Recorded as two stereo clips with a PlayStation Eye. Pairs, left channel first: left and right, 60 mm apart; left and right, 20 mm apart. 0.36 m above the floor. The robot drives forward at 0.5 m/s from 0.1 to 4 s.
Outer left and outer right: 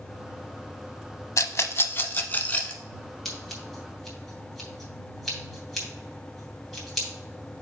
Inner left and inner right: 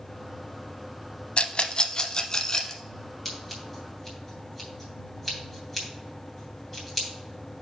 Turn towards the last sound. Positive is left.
turn(degrees=5)  # may be behind; listen again after turning